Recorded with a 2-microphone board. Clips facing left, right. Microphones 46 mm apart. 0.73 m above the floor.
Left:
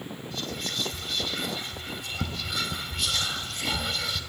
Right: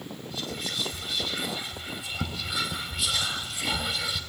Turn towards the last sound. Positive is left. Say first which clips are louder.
# even
turn(degrees=-5)  # may be behind; listen again after turning